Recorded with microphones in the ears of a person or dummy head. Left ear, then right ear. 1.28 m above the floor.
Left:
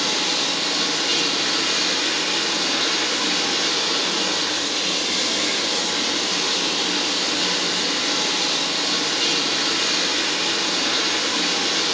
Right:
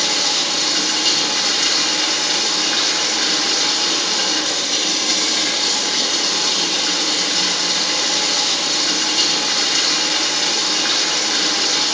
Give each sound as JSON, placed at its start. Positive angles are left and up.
{"t": 0.0, "sound": "running water", "side_deg": -65, "distance_m": 3.5}